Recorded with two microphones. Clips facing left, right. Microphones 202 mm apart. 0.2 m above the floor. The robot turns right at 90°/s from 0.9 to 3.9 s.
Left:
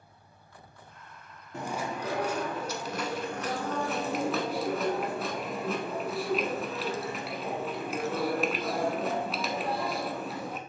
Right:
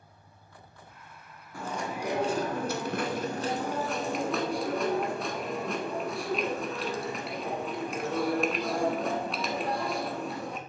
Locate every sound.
1.5 s chewing: 150° left, 0.9 m; by 10.6 s 5° left, 0.9 m